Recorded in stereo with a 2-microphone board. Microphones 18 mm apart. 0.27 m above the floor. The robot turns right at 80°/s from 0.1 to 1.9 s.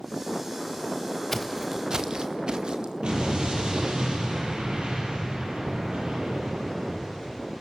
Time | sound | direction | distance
1.3 | footsteps | 20° left (ahead or behind) | 1.5 m
3.0 | an explosion | 60° right (ahead or behind) | 8.5 m